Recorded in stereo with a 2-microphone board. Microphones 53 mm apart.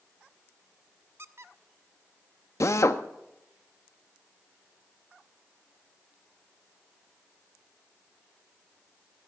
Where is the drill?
65° left (ahead or behind), 0.7 m.